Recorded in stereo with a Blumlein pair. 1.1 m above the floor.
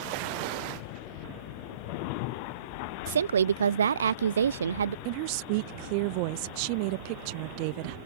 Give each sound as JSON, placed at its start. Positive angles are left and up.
{"t": 3.1, "sound": "a woman speaking", "azimuth_deg": -70}
{"t": 5.0, "sound": "a woman speaking", "azimuth_deg": -45}